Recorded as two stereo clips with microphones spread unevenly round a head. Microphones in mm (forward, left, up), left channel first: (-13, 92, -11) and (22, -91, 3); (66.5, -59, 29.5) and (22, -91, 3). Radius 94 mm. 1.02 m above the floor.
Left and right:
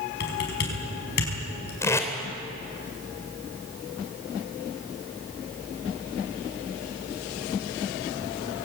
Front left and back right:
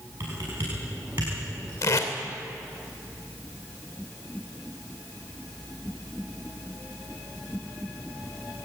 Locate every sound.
0.2 s typing on a keyboard: 140° left, 5 m
1.8 s tape being pulled: 25° left, 3 m